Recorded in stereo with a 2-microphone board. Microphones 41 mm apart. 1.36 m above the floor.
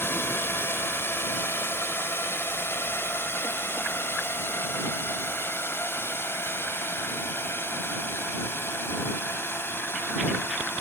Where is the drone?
65° left (ahead or behind).